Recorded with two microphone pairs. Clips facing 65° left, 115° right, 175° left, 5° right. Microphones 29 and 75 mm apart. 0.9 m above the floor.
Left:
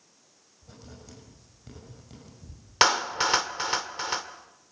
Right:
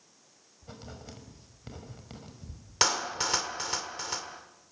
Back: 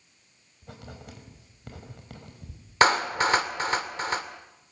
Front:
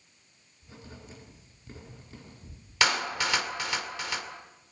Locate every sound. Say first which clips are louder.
0.6 s writing: right 3 dB, back 3 dB; 170° right, 6 m
2.8 s a clap: left 6 dB, back 6 dB; 125° left, 1.9 m